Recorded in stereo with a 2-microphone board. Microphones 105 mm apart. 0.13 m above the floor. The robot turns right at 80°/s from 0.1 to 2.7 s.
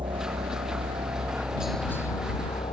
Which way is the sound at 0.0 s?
50° right (ahead or behind).